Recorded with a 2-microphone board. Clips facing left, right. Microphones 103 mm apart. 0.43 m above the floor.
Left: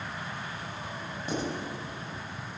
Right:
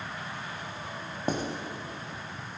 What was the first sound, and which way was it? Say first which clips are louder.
Writing: right 3 dB; 55° right (ahead or behind).